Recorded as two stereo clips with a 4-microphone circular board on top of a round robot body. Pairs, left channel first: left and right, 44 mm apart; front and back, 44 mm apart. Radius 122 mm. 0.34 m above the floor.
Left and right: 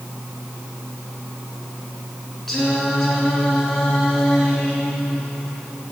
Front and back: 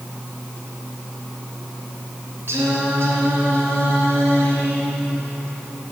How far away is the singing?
About 3.5 m.